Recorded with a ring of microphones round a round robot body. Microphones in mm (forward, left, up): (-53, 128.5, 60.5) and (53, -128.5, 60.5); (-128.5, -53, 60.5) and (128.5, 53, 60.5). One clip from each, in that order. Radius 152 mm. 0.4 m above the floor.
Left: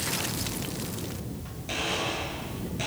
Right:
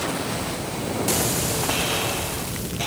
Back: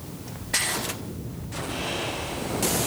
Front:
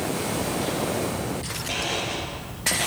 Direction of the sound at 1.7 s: 20° left.